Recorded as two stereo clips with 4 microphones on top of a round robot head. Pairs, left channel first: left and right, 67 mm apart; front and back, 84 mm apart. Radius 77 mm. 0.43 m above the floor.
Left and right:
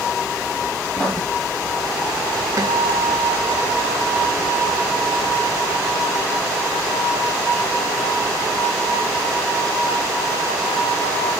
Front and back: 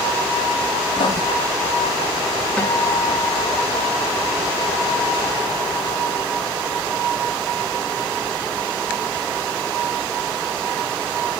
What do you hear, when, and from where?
0.9 s writing: 10° left, 1.7 m
2.6 s a guitar: 75° right, 2 m